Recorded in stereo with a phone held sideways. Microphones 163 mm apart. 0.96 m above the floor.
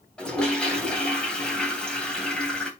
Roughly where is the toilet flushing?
Centre.